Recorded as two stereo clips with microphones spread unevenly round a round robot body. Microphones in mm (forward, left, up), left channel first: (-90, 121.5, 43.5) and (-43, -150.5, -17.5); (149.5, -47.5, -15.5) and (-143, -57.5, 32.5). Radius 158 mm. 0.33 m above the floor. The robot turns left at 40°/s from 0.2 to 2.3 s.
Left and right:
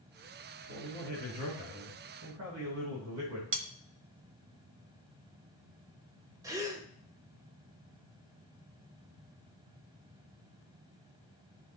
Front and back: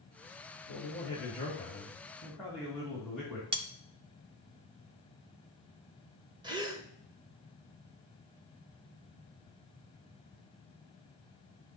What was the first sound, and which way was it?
A man speaking, 25° right.